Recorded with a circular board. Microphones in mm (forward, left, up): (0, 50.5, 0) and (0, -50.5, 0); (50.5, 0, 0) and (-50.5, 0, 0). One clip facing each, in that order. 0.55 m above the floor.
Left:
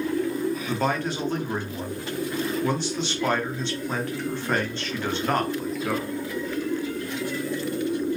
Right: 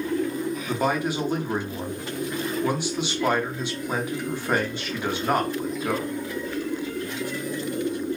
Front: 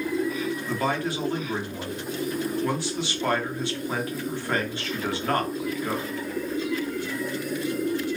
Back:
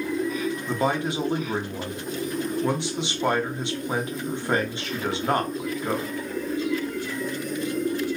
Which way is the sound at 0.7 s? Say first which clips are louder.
Right 1 dB, back 3 dB; 155° right.